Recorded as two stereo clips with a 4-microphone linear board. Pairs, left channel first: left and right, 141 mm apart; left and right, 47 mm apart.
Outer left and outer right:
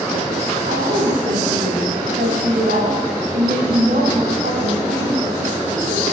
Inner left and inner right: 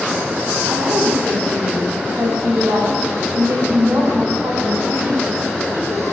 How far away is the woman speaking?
About 9 m.